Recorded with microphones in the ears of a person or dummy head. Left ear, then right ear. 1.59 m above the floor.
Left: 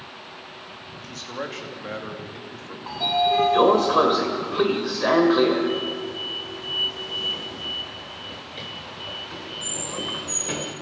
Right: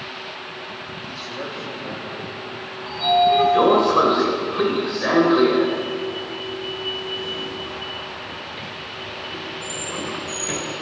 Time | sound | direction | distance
0.9 | a man speaking | 30° left (ahead or behind) | 3 m
2.9 | a sliding door | 15° left (ahead or behind) | 2.0 m